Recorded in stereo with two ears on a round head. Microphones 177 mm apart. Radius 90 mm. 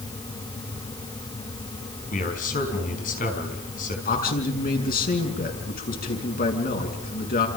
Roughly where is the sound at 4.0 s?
Left.